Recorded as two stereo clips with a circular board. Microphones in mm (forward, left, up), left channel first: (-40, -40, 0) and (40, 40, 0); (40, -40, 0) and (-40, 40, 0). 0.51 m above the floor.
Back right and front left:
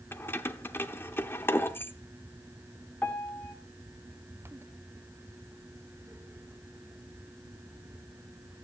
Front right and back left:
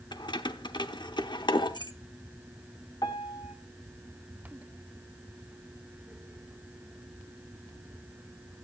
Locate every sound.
0.1 s keys jangling: 70° right, 0.8 m
3.0 s a piano: 65° right, 1.4 m